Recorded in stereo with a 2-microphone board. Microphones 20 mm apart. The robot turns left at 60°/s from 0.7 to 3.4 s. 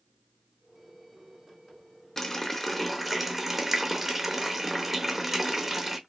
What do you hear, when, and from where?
2.2 s a running tap: 45° left, 0.5 m; by 6.0 s 30° right, 0.5 m